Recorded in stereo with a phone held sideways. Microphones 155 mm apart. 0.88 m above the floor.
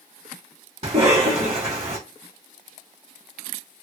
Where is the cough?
50° right (ahead or behind), 1.4 m.